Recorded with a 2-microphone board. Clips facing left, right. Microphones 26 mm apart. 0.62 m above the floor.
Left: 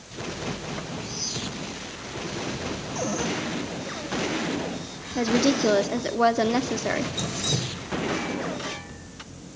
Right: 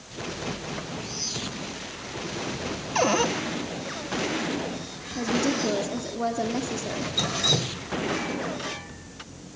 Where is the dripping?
40° right (ahead or behind), 0.6 m.